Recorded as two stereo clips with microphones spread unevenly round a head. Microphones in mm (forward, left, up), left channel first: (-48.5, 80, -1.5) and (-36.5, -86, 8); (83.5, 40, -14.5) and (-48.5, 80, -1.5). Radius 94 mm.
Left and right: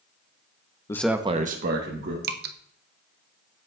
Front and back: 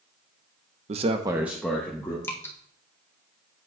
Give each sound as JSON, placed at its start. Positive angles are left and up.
{"t": 0.9, "sound": "a man speaking", "azimuth_deg": 150, "distance_m": 0.7}
{"t": 2.2, "sound": "dripping", "azimuth_deg": -85, "distance_m": 0.6}